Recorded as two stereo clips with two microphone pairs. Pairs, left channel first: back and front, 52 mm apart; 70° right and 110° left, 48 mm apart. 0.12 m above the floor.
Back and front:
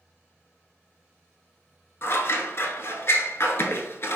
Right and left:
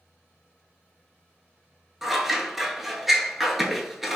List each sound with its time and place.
2.0 s scissors: 170° right, 0.5 m